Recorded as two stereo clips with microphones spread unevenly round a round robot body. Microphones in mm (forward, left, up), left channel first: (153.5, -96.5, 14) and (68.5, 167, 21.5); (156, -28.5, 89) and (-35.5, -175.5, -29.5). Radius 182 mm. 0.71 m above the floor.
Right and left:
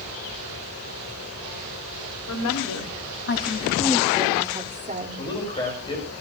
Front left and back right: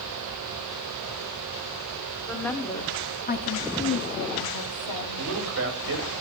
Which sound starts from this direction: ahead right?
A woman speaking, at 2.3 s.